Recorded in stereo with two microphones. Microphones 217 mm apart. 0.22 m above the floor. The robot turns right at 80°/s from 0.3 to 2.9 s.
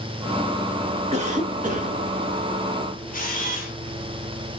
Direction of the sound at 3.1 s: 35° left (ahead or behind).